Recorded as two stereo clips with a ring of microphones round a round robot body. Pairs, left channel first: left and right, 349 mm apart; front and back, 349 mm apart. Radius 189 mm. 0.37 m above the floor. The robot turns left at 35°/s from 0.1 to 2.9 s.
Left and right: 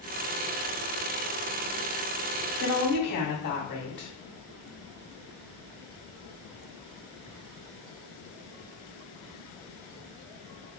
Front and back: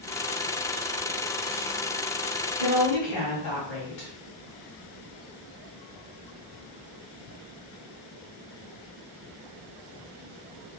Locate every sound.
2.6 s a woman speaking: 55° left, 1.8 m; by 4.1 s 45° left, 1.8 m